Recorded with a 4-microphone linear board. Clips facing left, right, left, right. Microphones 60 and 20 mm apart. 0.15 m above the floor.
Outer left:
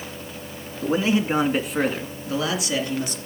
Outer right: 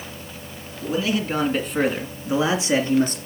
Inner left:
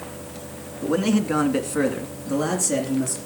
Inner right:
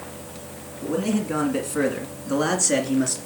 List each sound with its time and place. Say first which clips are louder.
0.8 s a man speaking: outer left 2 dB, inner left 3 dB; 40° left (ahead or behind), 2 m; by 3.2 s 45° right (ahead or behind), 2.5 m